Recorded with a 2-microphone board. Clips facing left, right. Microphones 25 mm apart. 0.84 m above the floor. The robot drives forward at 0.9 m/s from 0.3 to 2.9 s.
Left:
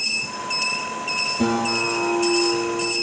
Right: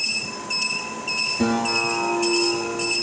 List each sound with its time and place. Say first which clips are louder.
1.4 s a guitar: even; 15° right (ahead or behind), 4.5 m; by 2.9 s 10° right (ahead or behind), 5.5 m